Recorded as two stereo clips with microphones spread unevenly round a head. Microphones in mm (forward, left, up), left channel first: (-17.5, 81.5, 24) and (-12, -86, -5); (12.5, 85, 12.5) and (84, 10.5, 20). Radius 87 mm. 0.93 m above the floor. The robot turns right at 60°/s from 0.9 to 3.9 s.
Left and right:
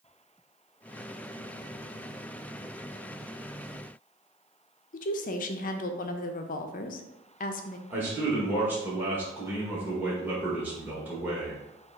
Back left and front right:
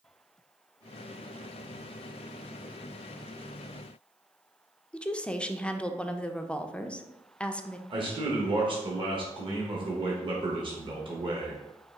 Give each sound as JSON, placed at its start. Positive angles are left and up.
{"t": 4.9, "sound": "a woman speaking", "azimuth_deg": 65, "distance_m": 0.5}
{"t": 7.9, "sound": "a man speaking", "azimuth_deg": -15, "distance_m": 1.1}